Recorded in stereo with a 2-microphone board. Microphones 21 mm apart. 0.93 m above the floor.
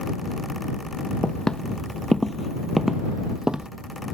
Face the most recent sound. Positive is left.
turn(degrees=-50)  # may be behind; listen again after turning